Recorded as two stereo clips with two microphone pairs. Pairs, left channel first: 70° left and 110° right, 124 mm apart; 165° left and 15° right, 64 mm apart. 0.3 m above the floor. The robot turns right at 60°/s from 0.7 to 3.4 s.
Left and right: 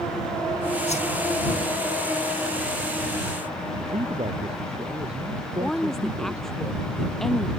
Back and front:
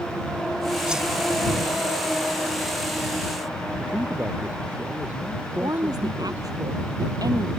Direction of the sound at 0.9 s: 60° left.